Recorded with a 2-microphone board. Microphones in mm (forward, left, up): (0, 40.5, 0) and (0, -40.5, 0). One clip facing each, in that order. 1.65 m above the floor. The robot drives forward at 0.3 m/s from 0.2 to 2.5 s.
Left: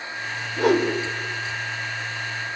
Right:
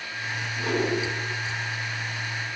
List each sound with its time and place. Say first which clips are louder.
0.5 s a whoosh: left 7 dB; 85° left, 6 m